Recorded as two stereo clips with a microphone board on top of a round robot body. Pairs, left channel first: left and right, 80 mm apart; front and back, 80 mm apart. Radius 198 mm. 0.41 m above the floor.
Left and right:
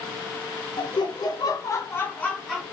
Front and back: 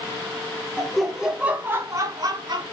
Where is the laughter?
80° left, 2.5 m; by 2.6 s 175° left, 2.5 m.